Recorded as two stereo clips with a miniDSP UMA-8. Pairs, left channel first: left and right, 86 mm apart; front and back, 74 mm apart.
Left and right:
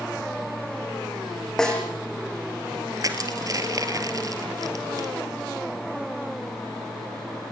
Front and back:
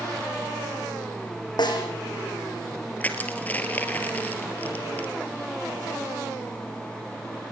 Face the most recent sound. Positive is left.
turn(degrees=-60)